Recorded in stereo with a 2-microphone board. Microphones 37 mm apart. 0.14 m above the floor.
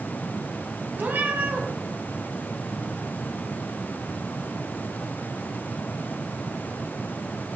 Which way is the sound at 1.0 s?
55° right (ahead or behind).